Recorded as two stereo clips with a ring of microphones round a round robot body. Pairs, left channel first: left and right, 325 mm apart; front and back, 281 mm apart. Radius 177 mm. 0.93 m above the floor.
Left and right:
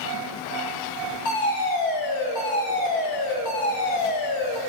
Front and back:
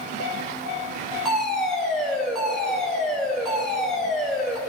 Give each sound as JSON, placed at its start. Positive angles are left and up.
{"t": 1.2, "sound": "a fire alarm", "azimuth_deg": 90, "distance_m": 7.0}